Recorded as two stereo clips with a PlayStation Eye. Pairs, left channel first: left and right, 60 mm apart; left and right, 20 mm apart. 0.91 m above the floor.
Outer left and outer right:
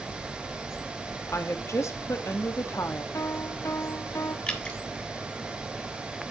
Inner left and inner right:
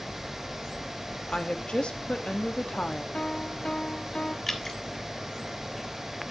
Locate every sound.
1.3 s a woman speaking: 60° left (ahead or behind), 1.3 m
3.1 s a piano: 60° left (ahead or behind), 1.4 m
4.5 s dripping: 20° left (ahead or behind), 1.4 m